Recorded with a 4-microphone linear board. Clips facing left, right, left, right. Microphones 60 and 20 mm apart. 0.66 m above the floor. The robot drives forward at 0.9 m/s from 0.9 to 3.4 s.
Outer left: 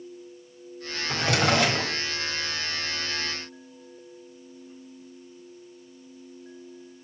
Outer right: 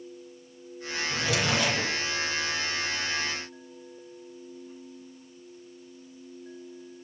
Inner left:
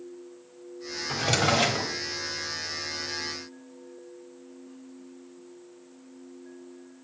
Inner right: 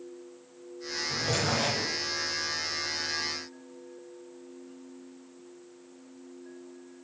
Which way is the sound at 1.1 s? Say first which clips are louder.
Outer left 5 dB, inner left 5 dB; 55° left (ahead or behind).